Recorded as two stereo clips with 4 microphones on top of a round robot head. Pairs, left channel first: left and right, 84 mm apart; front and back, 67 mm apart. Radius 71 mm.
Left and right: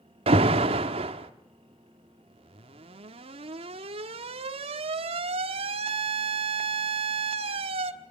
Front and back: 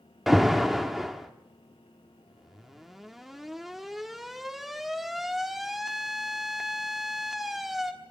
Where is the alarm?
95° right, 1.3 m.